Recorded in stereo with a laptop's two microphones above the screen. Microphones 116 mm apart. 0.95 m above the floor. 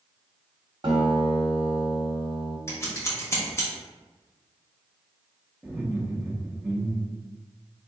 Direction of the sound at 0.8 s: 45° right (ahead or behind).